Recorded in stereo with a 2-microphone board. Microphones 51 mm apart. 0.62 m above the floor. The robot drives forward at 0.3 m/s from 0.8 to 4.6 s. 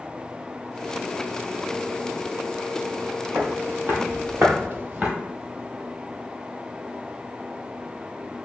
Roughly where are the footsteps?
Right.